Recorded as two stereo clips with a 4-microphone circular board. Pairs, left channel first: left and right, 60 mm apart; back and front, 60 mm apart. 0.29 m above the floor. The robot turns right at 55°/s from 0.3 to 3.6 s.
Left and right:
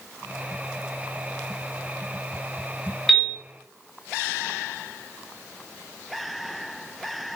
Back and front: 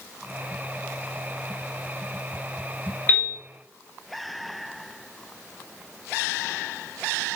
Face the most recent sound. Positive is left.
turn(degrees=-160)